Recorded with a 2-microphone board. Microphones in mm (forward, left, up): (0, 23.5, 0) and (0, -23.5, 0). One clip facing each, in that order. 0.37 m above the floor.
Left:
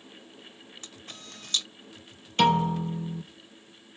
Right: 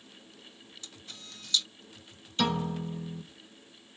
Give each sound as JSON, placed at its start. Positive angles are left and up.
{"t": 0.8, "sound": "a camera shutter", "side_deg": 45, "distance_m": 1.3}
{"t": 2.4, "sound": "a piano", "side_deg": 50, "distance_m": 4.5}